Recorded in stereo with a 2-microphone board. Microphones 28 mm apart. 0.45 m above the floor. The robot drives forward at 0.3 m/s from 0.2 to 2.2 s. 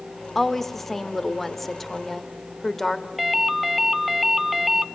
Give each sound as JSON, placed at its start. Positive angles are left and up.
{"t": 0.3, "sound": "a woman speaking", "side_deg": 5, "distance_m": 1.2}
{"t": 3.2, "sound": "a ringtone", "side_deg": -5, "distance_m": 0.5}